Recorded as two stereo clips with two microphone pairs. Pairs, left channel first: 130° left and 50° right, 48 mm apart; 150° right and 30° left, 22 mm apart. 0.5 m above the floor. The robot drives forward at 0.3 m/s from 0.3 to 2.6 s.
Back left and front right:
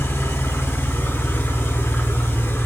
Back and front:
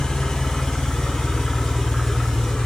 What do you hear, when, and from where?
0.0 s an engine running: 155° left, 1.4 m; by 2.7 s 165° left, 2 m